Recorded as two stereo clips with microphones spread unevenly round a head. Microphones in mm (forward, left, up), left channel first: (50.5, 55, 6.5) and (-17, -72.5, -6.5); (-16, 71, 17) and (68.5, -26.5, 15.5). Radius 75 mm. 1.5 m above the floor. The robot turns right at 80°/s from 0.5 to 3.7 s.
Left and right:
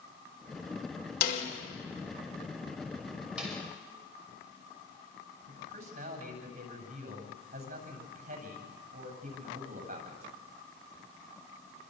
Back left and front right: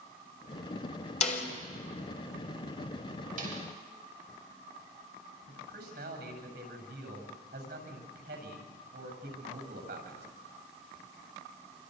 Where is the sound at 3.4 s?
35° right, 6.5 m; by 3.6 s 10° right, 6.5 m.